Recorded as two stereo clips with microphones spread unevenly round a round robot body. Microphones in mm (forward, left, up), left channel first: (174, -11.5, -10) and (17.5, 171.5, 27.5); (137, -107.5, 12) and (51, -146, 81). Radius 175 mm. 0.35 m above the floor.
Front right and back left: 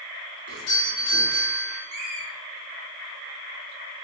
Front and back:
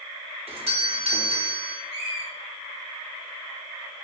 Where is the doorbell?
120° right, 3 m.